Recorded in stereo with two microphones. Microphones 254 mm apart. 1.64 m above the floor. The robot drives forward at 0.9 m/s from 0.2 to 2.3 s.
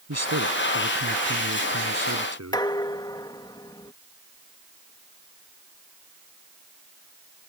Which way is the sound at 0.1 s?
85° right.